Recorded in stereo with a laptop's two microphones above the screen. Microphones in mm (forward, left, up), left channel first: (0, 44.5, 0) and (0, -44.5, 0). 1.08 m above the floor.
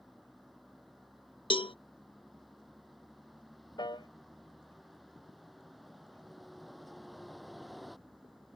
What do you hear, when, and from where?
0.0 s a vehicle: centre (ahead or behind)
1.5 s a cowbell: 75° left (ahead or behind)
3.8 s a piano: 55° left (ahead or behind)